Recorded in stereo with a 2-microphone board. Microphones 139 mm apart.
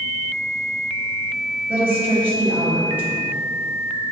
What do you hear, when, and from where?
1.7 s a woman speaking: 10° right (ahead or behind), 1.1 m